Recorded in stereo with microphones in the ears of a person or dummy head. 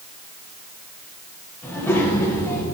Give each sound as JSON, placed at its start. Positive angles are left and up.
{"t": 1.6, "sound": "a child speaking", "side_deg": 10, "distance_m": 7.5}